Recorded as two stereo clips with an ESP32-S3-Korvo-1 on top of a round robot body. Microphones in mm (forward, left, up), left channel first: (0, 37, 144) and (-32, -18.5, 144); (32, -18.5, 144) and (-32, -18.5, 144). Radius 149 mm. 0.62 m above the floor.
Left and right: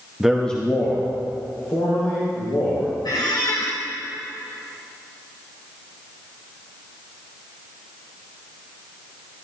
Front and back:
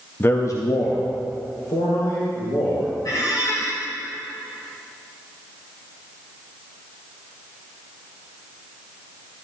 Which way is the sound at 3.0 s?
35° left.